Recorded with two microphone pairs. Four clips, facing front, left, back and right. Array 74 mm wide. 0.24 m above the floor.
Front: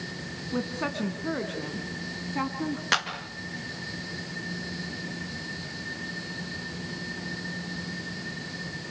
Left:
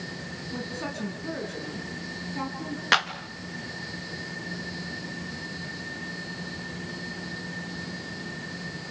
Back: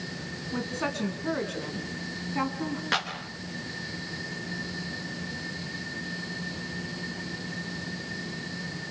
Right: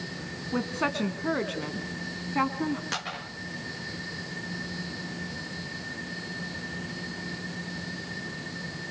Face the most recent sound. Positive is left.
turn(degrees=80)